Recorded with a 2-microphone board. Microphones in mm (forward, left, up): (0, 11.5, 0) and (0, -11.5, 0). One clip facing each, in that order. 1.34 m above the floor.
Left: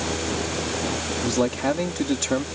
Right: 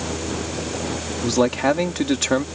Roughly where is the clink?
No clink in this recording.